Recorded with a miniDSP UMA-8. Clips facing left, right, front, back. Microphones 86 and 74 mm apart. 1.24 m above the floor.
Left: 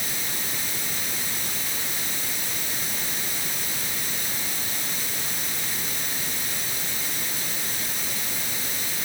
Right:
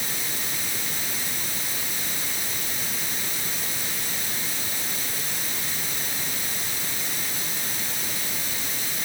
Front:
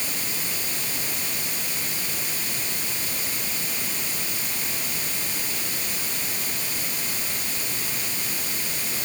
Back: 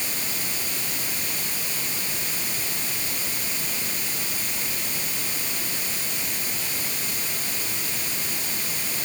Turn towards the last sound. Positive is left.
No sound to turn to.